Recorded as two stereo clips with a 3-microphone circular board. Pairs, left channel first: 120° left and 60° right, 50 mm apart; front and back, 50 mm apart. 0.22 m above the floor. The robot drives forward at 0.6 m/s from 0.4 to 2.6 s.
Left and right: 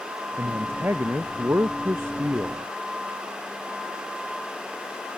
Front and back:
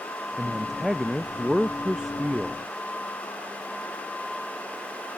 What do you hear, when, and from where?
0.4 s a man speaking: 95° right; by 2.6 s 100° right